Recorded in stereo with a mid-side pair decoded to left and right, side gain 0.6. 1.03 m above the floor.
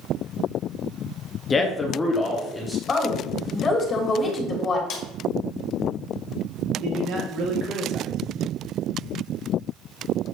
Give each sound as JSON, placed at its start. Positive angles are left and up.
{"t": 1.5, "sound": "a man speaking", "azimuth_deg": 30, "distance_m": 1.0}
{"t": 2.9, "sound": "a woman speaking", "azimuth_deg": 30, "distance_m": 3.0}
{"t": 4.9, "sound": "a snare drum", "azimuth_deg": 60, "distance_m": 2.0}
{"t": 6.8, "sound": "a man speaking", "azimuth_deg": -65, "distance_m": 2.0}